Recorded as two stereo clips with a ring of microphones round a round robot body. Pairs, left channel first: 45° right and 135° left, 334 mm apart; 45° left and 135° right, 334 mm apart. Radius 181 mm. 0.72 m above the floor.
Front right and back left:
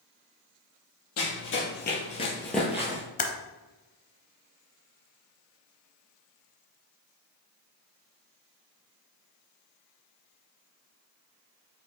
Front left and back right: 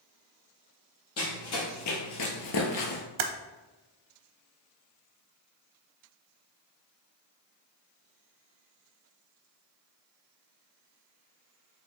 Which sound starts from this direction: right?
Typing on a keyboard, at 3.2 s.